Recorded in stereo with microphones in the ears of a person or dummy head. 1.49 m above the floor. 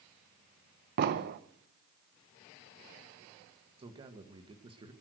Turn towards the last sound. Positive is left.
turn(degrees=-25)  # may be behind; listen again after turning